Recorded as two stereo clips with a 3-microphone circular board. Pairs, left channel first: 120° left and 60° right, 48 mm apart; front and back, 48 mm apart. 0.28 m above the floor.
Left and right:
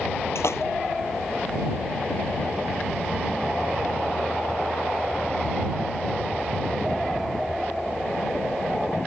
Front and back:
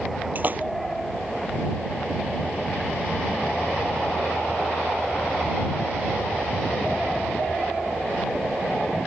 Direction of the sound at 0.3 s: 135° left.